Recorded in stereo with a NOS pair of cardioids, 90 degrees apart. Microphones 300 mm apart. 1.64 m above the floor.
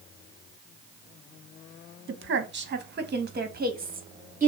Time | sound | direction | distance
2.1 | a woman speaking | 40° right | 1.9 m